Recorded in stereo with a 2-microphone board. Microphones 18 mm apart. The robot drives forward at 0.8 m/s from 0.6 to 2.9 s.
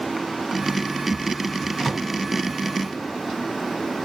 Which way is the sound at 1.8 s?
5° left (ahead or behind).